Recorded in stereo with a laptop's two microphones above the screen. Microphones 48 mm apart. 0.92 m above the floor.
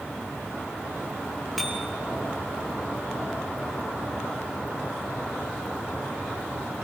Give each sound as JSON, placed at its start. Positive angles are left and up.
{"t": 1.6, "sound": "a bicycle bell", "side_deg": -5, "distance_m": 7.5}